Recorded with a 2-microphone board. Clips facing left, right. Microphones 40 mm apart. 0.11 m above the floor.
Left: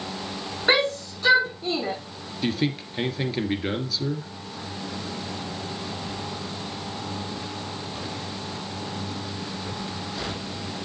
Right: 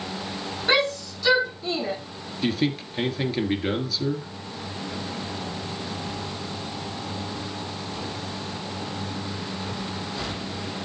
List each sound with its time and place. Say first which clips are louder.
0.7 s a shout: left 1 dB; 35° left (ahead or behind), 6.5 m; by 1.9 s 45° left (ahead or behind), 6 m
2.4 s a man speaking: right 1 dB; centre (ahead or behind), 1.7 m